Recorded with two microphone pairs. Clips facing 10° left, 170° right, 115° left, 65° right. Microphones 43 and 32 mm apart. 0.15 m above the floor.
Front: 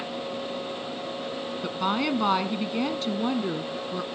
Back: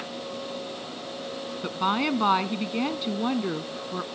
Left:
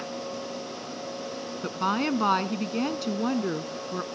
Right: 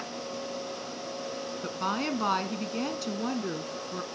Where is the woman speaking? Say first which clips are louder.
Back 1 dB, left 5 dB; 140° left, 1.1 m.